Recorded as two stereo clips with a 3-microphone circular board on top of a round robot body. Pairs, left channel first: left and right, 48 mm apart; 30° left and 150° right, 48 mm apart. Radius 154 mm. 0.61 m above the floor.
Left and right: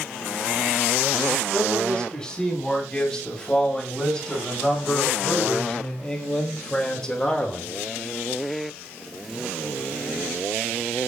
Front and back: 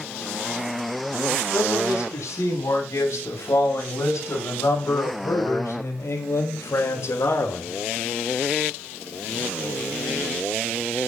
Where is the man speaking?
15° left, 8.5 m.